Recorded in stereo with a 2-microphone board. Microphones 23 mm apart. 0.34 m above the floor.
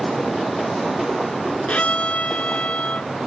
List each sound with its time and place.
1.7 s a violin: 80° left